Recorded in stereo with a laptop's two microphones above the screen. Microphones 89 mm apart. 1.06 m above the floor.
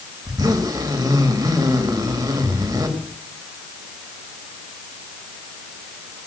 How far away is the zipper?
About 2.0 m.